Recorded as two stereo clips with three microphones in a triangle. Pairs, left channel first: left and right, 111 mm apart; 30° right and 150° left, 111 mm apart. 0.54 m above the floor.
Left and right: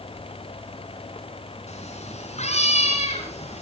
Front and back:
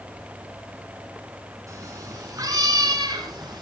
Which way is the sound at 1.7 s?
90° left.